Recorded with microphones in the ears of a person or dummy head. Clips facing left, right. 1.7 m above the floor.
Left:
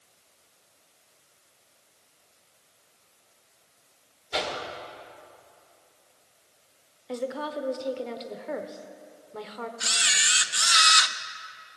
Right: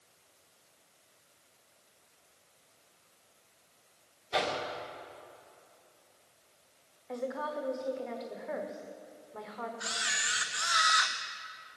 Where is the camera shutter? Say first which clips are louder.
Left 3 dB; 40° left (ahead or behind), 0.7 m.